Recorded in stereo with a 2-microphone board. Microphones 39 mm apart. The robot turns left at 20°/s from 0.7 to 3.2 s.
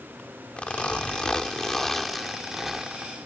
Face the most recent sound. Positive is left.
turn(degrees=-20)